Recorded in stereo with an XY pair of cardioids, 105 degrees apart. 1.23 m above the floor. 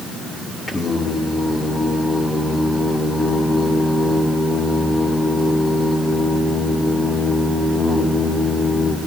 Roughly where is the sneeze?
No sneeze in this recording.